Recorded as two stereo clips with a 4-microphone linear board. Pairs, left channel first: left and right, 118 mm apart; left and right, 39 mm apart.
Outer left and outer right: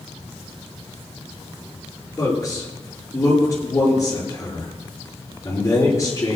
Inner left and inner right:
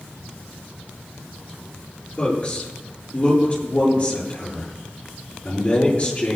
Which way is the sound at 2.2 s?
25° left (ahead or behind).